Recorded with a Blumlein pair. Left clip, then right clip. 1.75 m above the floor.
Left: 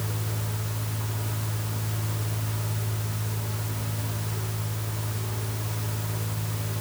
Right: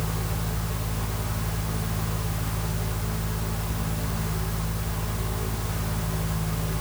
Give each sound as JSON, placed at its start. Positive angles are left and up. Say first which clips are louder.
{"t": 0.0, "sound": "a fan", "louder": "right 3 dB", "azimuth_deg": -25, "distance_m": 4.0}